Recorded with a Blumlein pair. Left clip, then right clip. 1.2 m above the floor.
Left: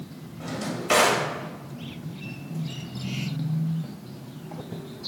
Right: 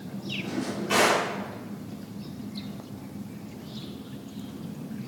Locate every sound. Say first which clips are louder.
0.4 s a drawer: left 3 dB; 60° left, 1.1 m